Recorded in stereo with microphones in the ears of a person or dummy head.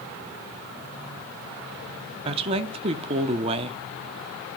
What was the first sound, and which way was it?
A woman speaking, 30° right (ahead or behind).